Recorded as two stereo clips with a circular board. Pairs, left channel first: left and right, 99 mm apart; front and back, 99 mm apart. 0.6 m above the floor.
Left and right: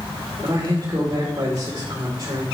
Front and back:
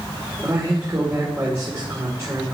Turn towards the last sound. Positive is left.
turn(degrees=-125)